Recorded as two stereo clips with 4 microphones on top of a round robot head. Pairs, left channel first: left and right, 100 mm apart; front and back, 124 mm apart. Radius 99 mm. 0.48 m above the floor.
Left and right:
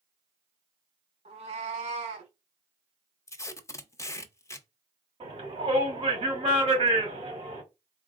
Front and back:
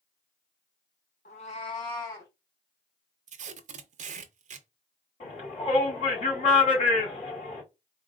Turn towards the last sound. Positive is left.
turn(degrees=-50)